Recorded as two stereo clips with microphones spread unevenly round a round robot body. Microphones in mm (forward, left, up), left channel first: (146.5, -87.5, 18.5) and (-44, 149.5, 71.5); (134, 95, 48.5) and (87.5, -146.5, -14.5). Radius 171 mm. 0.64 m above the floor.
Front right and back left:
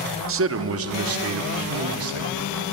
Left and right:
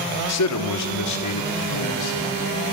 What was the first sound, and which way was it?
A man speaking, 85° left.